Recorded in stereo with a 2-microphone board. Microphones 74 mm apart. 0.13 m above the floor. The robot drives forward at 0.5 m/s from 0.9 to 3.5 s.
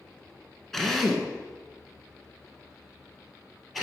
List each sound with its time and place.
0.7 s a drill: 5° left (ahead or behind), 1.0 m